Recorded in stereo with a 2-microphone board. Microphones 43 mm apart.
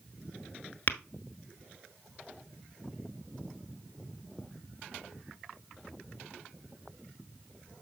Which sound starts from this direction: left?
Tapping, at 0.9 s.